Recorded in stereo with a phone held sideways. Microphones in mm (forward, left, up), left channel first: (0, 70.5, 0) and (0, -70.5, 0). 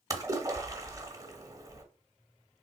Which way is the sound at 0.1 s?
25° right (ahead or behind).